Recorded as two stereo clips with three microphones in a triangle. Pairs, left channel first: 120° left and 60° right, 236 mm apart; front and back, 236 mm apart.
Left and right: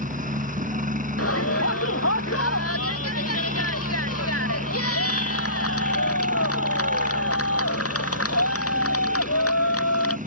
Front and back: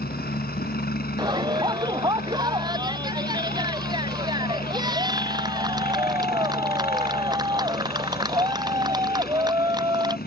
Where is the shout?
105° left.